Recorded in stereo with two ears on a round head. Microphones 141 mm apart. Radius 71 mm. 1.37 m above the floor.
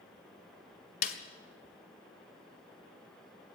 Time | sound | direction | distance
1.0 | a snare drum | 60° left (ahead or behind) | 2 m